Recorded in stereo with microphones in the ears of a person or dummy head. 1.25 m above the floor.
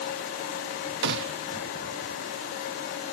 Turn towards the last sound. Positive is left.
turn(degrees=-60)  # may be behind; listen again after turning